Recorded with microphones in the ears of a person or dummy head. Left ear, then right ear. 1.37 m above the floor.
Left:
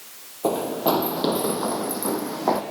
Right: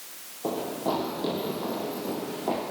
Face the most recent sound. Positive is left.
turn(degrees=65)  # may be behind; listen again after turning